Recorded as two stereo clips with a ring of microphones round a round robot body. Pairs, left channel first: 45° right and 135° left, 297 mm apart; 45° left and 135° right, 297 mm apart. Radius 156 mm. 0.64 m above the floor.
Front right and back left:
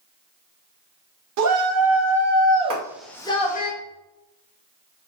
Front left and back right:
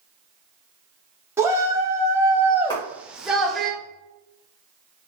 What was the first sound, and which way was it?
A shout, 145° left.